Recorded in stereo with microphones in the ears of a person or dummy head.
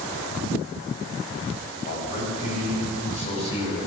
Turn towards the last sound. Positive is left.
turn(degrees=25)  # may be behind; listen again after turning